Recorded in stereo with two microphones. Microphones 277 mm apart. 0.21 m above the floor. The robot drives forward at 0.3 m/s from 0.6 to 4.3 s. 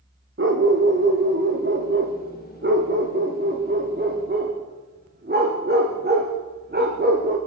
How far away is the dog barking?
About 4 m.